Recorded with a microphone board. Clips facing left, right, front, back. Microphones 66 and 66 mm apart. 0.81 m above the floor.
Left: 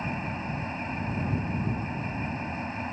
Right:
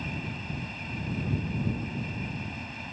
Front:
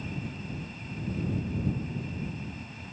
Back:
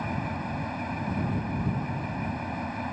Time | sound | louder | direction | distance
0.0 | an engine running | left 4 dB, back 7 dB | 150° left | ?